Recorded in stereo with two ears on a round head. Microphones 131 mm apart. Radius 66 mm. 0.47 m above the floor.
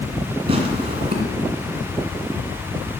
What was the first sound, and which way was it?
Tearing paper, 40° right (ahead or behind).